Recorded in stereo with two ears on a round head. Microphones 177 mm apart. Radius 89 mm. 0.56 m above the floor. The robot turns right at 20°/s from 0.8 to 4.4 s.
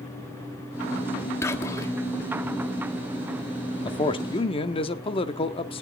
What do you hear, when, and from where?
1.4 s whispering: 15° left (ahead or behind), 1.2 m
3.9 s a man speaking: 25° left (ahead or behind), 0.8 m; by 5.8 s 30° left (ahead or behind), 0.8 m